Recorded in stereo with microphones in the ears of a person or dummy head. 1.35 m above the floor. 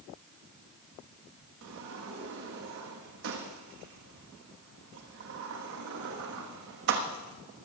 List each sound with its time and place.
1.6 s a sliding door: 55° right (ahead or behind), 1.1 m